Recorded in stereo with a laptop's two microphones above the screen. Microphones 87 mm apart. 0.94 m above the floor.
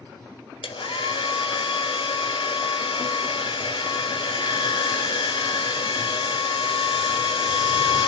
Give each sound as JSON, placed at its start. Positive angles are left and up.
{"t": 0.6, "sound": "a hair dryer", "side_deg": 80, "distance_m": 1.4}